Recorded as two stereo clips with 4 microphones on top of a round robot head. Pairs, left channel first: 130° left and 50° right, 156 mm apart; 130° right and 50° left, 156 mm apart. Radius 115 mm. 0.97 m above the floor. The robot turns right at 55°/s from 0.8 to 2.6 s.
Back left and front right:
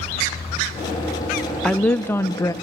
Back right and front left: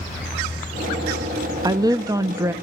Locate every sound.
1.6 s a woman speaking: 50° left, 0.7 m; by 2.5 s 100° left, 0.7 m